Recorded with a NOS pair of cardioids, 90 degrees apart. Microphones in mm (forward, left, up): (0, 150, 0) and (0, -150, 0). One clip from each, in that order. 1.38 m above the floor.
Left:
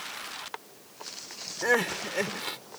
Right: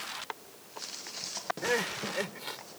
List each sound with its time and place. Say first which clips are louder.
1.6 s crying: left 6 dB; 35° left